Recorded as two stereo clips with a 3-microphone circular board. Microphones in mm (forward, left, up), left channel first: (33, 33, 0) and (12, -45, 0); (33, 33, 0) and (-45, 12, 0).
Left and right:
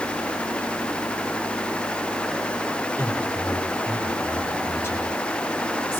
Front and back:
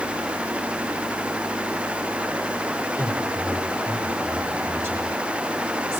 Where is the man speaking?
140° left, 7.5 m.